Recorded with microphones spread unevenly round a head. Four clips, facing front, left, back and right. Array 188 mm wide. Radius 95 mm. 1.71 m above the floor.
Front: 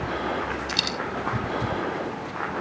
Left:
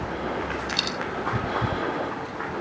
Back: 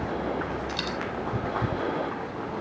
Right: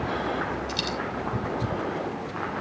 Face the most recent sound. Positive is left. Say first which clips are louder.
# even, front 1 dB
turn(degrees=20)